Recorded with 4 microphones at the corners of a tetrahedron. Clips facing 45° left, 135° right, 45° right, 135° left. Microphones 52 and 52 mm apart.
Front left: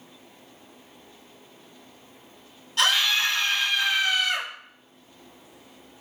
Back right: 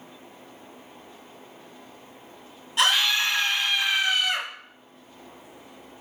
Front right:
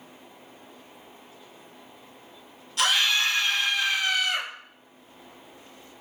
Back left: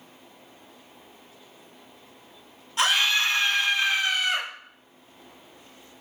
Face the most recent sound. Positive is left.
turn(degrees=170)